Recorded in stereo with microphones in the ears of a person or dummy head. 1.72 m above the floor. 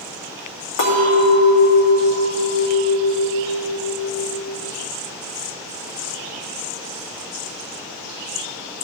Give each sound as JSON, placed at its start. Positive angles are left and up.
{"t": 0.8, "sound": "a clink", "side_deg": 65, "distance_m": 2.5}